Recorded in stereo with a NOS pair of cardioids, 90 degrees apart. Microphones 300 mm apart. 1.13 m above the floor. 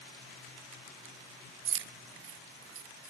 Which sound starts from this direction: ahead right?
Keys jangling, at 1.6 s.